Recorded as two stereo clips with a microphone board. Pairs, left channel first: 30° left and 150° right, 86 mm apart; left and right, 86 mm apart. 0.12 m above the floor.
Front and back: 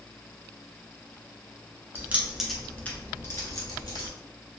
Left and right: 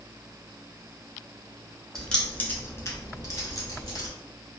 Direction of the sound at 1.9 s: 170° left.